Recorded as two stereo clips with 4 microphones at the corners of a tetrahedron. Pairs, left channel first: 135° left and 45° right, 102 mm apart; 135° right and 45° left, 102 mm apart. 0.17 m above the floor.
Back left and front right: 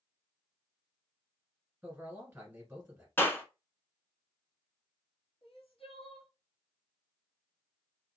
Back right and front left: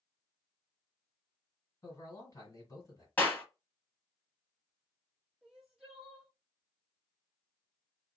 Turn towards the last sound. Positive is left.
turn(degrees=130)